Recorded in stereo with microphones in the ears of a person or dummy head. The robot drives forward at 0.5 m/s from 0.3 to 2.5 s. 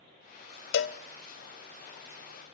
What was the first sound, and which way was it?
A cowbell, 65° left (ahead or behind).